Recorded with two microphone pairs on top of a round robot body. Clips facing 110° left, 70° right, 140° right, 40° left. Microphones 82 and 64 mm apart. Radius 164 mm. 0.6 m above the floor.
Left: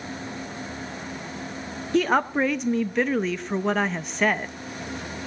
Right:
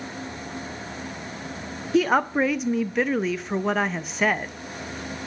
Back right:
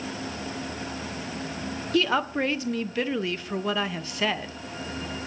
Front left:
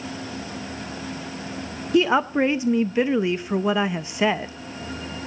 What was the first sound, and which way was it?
A woman speaking, 35° left.